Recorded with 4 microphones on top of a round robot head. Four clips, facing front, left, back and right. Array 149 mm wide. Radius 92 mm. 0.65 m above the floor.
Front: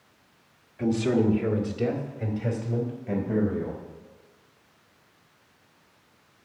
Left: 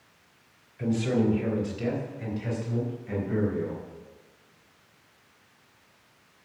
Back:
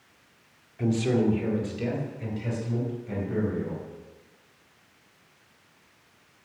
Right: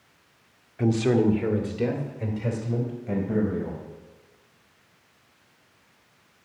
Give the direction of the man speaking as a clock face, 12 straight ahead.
3 o'clock.